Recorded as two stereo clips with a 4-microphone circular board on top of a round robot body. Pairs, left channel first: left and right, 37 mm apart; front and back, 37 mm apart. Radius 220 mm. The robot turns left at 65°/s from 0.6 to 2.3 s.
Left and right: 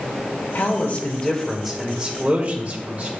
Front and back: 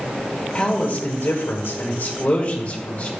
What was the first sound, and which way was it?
A man speaking, 70° left.